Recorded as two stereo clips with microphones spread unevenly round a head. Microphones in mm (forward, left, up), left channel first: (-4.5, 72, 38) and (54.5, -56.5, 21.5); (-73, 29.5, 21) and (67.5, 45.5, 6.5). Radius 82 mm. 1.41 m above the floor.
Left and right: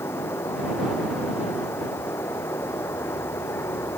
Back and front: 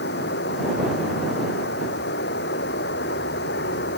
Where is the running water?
170° right.